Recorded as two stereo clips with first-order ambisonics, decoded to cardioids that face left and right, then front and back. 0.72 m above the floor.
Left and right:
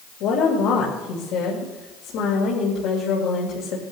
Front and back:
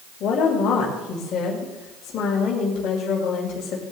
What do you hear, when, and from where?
0.2 s a woman speaking: 55° left, 2.5 m